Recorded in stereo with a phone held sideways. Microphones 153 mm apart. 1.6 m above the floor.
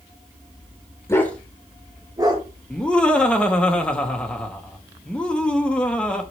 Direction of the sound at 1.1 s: 15° left (ahead or behind).